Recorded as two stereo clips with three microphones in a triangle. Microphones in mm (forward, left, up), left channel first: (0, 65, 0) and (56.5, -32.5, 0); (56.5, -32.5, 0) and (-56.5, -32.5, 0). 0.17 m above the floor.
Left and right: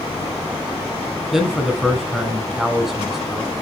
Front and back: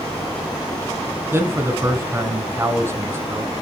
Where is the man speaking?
145° right, 1.5 m.